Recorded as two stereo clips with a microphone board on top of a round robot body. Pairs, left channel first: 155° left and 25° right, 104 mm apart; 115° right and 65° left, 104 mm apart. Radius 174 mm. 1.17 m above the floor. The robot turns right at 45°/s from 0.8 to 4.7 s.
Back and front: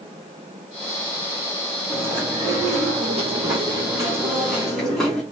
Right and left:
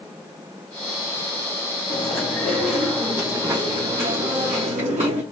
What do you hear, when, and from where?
1.9 s chewing: 55° right, 1.1 m; by 5.2 s 70° left, 1.1 m